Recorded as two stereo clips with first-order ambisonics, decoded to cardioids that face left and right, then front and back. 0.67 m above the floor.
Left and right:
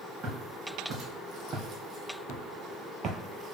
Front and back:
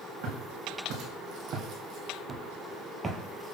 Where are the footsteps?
145° right, 1.9 m; by 3.5 s 70° right, 0.7 m.